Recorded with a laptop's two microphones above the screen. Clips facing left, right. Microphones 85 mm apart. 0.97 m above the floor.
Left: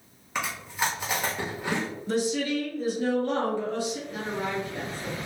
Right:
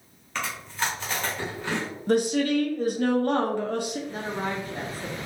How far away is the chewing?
About 0.9 m.